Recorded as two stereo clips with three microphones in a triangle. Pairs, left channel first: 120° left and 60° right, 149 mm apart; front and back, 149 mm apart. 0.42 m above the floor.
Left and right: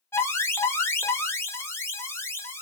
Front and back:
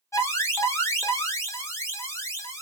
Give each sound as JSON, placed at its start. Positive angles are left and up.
{"t": 0.1, "sound": "an alarm", "azimuth_deg": 60, "distance_m": 1.0}